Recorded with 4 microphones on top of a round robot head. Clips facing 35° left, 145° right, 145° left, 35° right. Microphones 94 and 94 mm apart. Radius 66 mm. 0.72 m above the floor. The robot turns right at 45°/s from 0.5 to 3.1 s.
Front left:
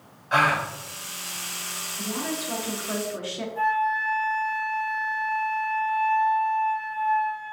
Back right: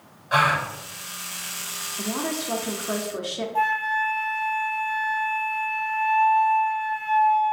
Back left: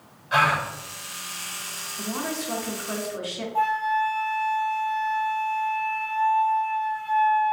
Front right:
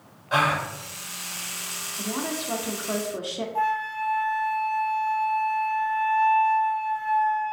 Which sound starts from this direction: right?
A gasp, at 0.3 s.